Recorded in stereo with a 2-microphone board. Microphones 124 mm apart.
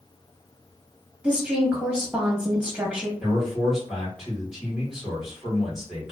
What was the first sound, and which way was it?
A woman speaking, 15° right (ahead or behind).